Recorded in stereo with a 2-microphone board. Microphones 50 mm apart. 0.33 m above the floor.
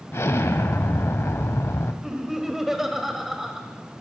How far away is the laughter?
About 1.3 m.